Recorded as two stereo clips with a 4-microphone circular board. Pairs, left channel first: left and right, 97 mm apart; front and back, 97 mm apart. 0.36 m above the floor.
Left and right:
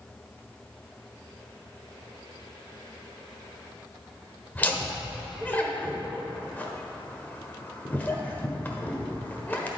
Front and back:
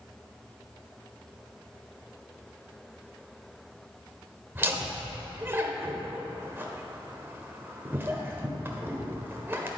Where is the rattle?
I don't hear a rattle.